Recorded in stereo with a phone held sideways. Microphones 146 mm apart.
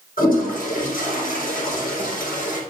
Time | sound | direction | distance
0.2 | a toilet flushing | 80° left | 4 m